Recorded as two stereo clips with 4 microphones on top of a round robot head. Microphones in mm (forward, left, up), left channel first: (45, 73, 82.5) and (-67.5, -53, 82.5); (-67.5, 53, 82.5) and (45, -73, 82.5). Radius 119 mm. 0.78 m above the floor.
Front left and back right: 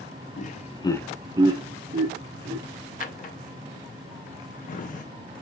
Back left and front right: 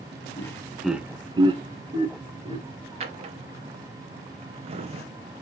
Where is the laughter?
65° left, 0.8 m; by 2.6 s 100° right, 1.4 m.